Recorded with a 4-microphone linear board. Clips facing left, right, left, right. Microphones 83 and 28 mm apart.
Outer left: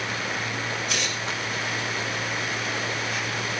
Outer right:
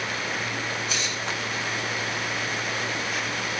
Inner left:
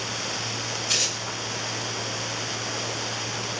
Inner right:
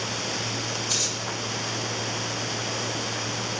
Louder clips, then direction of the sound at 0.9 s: Outer left 1 dB, inner left 5 dB; 75° left (ahead or behind).